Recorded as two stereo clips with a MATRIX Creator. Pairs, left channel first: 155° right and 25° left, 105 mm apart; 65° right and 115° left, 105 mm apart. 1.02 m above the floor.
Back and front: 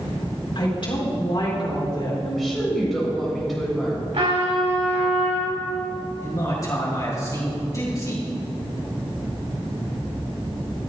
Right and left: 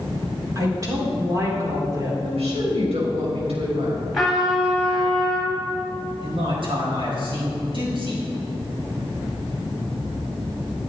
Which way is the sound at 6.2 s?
145° left.